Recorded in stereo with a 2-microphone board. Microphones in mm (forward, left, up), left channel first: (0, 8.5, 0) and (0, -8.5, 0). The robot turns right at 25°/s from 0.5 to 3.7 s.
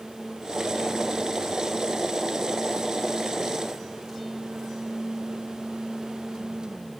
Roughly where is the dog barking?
No dog barking in this recording.